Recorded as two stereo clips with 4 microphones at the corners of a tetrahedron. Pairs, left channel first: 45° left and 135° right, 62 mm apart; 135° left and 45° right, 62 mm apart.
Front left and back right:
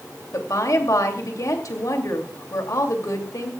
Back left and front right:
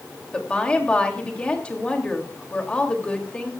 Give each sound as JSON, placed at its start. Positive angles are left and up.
{"t": 0.3, "sound": "a woman speaking", "azimuth_deg": 65, "distance_m": 2.5}